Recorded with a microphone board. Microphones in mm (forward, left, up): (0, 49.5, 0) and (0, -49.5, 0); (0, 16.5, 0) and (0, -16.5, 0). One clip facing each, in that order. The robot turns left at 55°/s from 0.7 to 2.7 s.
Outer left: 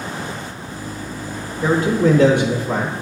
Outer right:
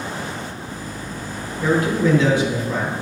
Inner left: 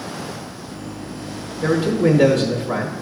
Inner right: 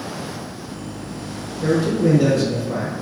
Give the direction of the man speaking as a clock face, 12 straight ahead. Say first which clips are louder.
Outer left 2 dB, inner left 1 dB; 7 o'clock.